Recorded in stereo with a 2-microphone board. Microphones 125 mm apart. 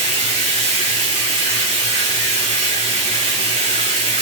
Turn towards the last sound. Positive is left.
turn(degrees=75)  # may be behind; listen again after turning